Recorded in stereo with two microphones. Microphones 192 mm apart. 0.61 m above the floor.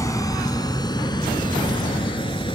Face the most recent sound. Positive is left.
turn(degrees=25)  # may be behind; listen again after turning